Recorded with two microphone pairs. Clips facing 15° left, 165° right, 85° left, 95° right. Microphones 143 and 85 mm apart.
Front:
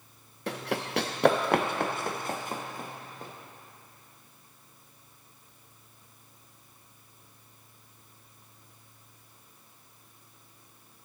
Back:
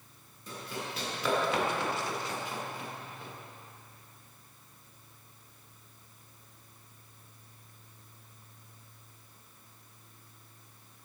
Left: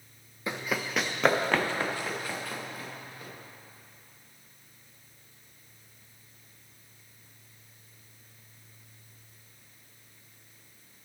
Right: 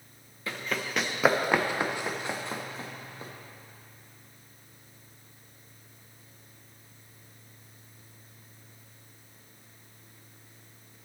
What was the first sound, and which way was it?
Running footsteps, 15° left.